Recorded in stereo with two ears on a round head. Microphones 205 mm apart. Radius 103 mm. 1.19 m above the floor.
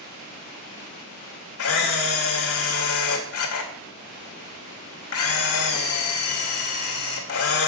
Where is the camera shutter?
70° left (ahead or behind), 2.5 m.